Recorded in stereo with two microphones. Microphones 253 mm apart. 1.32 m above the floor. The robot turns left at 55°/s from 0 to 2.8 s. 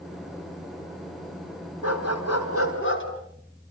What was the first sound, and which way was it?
A dog barking, 105° left.